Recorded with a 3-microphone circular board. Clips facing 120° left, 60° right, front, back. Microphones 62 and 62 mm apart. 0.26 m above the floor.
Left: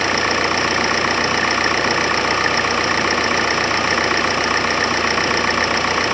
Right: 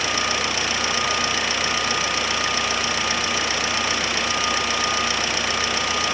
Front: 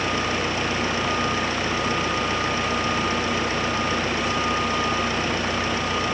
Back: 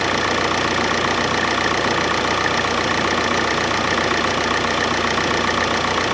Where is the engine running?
165° left.